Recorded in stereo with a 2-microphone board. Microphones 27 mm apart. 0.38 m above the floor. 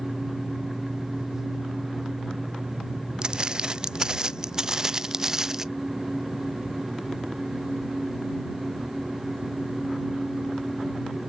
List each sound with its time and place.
3.2 s footsteps: 30° right (ahead or behind); by 5.7 s 15° right (ahead or behind)